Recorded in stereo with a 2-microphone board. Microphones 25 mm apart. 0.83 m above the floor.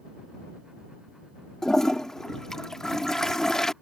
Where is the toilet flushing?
20° left (ahead or behind).